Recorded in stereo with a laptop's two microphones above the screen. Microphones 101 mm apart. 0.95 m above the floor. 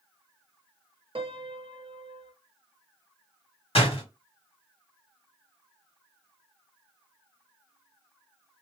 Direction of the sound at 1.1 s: 65° right (ahead or behind).